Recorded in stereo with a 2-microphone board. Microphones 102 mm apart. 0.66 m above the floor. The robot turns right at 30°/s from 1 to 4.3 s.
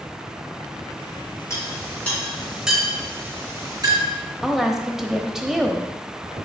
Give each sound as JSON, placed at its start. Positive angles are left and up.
{"t": 1.5, "sound": "a clink", "side_deg": 30, "distance_m": 4.0}
{"t": 4.4, "sound": "a woman speaking", "side_deg": -5, "distance_m": 1.0}